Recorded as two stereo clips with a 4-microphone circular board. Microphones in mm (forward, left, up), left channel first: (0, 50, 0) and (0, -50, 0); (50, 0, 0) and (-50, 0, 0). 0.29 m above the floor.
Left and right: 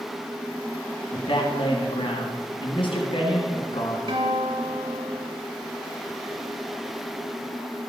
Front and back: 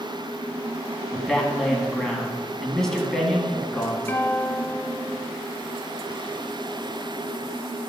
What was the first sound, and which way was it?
A man speaking, 85° left.